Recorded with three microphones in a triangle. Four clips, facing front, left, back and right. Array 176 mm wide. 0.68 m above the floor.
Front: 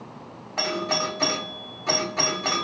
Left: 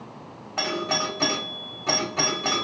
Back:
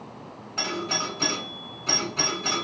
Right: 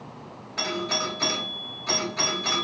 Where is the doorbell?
50° left, 1.5 m.